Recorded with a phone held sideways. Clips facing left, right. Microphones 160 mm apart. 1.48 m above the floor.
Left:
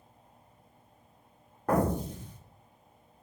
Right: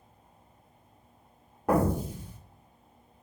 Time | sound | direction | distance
1.7 | an explosion | 10° right (ahead or behind) | 0.5 m